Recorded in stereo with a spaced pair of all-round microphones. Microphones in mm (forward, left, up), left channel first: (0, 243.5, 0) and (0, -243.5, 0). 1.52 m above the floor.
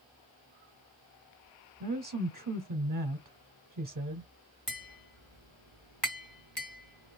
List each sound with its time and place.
1.8 s a woman speaking: 40° right (ahead or behind), 0.6 m
4.7 s tapping: 55° left (ahead or behind), 2.5 m